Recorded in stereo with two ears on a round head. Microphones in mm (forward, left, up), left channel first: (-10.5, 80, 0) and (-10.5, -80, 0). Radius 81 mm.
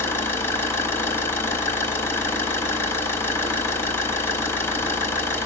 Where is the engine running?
15° left (ahead or behind), 1.1 m.